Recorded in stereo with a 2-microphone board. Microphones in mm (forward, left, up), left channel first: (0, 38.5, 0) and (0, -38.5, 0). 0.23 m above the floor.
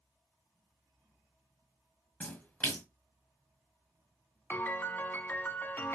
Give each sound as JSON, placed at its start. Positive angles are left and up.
{"t": 2.2, "sound": "a splash", "side_deg": 20, "distance_m": 1.1}
{"t": 4.5, "sound": "a piano", "side_deg": 25, "distance_m": 0.6}